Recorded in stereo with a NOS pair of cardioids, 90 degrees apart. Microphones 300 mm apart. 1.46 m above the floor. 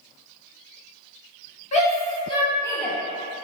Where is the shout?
20° left, 1.3 m; by 3.0 s straight ahead, 0.7 m.